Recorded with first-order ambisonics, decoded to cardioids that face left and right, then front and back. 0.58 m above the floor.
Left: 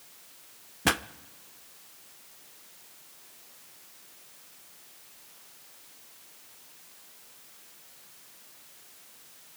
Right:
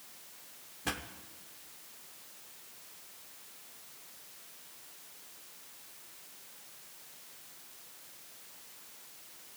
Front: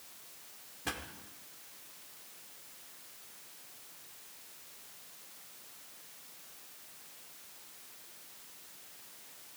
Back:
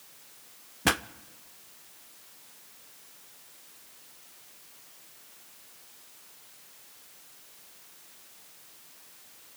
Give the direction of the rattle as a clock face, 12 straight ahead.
I don't hear a rattle.